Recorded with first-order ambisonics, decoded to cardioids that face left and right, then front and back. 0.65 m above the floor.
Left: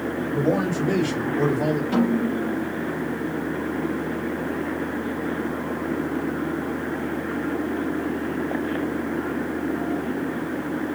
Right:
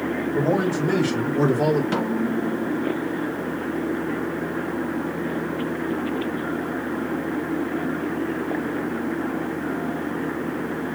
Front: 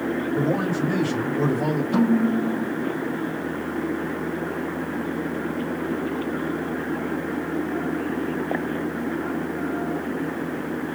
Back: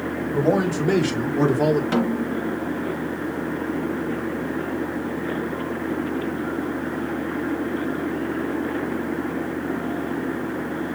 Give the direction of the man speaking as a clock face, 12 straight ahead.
6 o'clock.